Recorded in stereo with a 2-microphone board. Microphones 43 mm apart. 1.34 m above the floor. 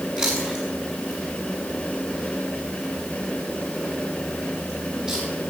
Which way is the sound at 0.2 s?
20° right (ahead or behind).